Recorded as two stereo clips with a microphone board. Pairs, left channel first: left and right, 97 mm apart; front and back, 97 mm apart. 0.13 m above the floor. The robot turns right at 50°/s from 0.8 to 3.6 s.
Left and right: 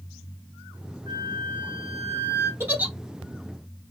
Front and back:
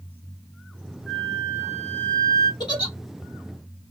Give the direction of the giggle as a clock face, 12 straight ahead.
1 o'clock.